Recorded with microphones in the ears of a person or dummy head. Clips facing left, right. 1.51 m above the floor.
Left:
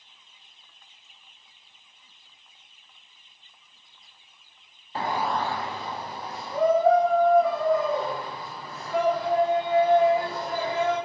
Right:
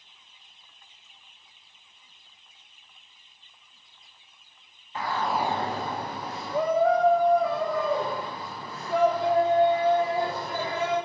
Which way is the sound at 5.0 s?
30° left (ahead or behind).